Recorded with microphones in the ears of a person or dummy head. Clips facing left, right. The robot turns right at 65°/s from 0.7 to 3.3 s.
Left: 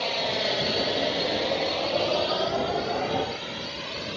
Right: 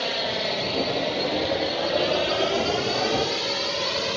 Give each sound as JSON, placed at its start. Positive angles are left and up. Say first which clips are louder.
{"t": 0.0, "sound": "a drone", "louder": "right 1 dB", "side_deg": -15}